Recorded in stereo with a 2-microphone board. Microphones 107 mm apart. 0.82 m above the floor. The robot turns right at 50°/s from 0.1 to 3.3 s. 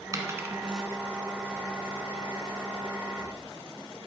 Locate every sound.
0.1 s a dropped coin: 35° right (ahead or behind), 1.5 m; by 0.8 s centre (ahead or behind), 1.5 m